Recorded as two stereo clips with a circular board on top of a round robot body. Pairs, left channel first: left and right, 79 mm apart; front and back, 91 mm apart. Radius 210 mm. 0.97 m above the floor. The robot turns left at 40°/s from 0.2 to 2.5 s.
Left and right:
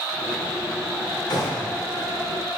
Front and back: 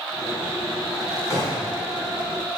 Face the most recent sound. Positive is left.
turn(degrees=10)